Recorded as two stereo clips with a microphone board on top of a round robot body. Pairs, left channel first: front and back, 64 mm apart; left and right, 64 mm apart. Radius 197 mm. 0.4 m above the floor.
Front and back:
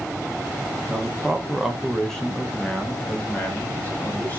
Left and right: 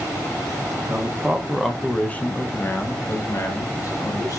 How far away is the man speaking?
About 0.9 m.